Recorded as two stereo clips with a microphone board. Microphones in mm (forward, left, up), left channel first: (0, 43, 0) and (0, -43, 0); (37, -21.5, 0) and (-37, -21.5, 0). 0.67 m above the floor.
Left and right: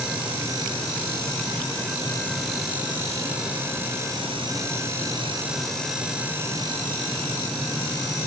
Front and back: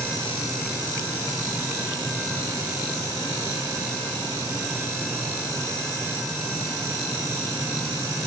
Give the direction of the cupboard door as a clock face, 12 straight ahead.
No cupboard door in this recording.